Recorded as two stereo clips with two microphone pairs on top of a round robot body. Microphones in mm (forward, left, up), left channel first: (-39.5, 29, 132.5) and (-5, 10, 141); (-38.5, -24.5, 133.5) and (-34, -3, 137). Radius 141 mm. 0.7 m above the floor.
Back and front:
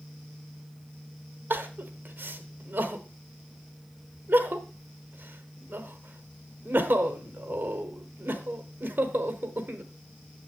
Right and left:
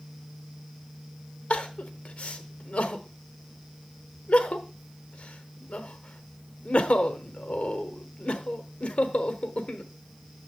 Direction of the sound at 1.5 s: 75° right.